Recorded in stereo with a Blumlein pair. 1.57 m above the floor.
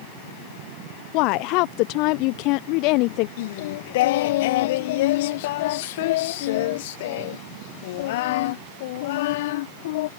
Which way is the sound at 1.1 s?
40° left.